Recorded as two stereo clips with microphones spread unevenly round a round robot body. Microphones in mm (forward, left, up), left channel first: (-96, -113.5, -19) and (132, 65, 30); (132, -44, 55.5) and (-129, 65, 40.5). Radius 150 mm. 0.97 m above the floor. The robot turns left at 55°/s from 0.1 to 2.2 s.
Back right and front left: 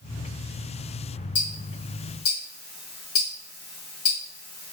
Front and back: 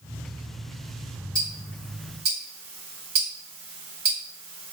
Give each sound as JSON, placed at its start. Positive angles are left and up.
{"t": 1.4, "sound": "ticking", "azimuth_deg": -110, "distance_m": 1.2}